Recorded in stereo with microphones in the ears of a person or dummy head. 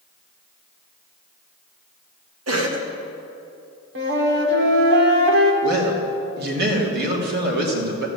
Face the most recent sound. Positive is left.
turn(degrees=-60)  # may be behind; listen again after turning